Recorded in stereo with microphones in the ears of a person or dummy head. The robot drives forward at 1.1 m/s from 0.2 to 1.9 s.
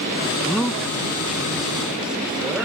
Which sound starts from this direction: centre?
A man speaking, at 0.5 s.